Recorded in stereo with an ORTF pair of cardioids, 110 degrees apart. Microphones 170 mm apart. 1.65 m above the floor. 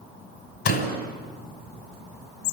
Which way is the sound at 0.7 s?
65° left.